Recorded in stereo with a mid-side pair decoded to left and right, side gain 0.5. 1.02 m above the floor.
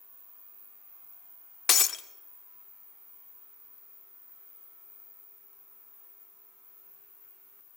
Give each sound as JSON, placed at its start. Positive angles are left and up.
{"t": 1.7, "sound": "breaking glass", "azimuth_deg": 50, "distance_m": 1.3}